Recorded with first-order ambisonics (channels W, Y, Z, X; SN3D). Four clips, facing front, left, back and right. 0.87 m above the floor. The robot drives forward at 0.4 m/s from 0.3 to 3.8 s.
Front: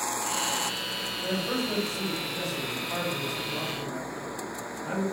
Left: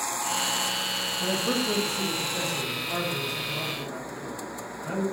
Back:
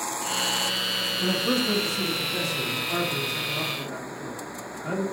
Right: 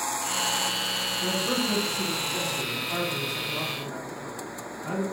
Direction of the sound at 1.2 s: 155° left.